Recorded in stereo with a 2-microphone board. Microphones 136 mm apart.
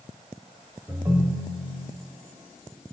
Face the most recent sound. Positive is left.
turn(degrees=-25)  # may be behind; listen again after turning